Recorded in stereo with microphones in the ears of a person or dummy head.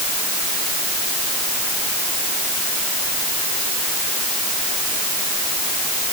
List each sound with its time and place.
Only background noise.